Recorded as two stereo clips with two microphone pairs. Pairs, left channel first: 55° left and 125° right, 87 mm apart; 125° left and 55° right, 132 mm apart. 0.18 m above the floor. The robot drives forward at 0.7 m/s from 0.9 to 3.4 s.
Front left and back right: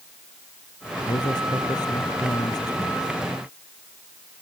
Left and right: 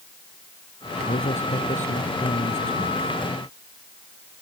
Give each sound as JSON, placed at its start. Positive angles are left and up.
{"t": 1.1, "sound": "a man speaking", "azimuth_deg": 95}